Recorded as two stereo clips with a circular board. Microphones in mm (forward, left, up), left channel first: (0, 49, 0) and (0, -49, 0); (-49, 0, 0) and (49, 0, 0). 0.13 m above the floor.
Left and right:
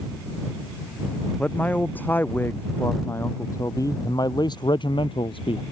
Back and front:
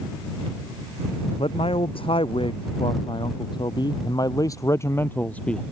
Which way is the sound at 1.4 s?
165° left.